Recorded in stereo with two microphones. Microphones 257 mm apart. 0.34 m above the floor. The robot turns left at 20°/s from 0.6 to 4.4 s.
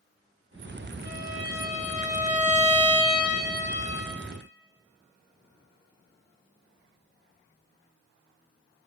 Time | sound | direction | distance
1.1 | a violin | 100° right | 0.5 m